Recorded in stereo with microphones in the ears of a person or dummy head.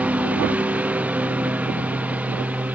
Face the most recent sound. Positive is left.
turn(degrees=-5)  # may be behind; listen again after turning